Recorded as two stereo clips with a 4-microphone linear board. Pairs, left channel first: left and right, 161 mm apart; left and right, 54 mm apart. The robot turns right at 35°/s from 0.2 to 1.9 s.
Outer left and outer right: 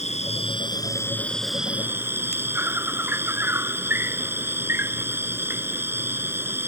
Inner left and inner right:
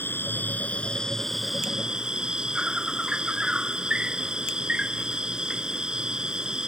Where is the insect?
135° left; by 6.7 s 165° right.